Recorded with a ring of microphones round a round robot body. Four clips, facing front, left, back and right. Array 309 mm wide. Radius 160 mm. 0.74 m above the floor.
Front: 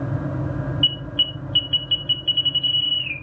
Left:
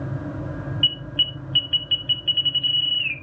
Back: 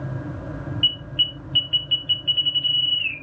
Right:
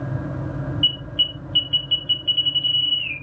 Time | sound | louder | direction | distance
0.8 | an alarm | right 1 dB, front 2 dB | 35° left | 3 m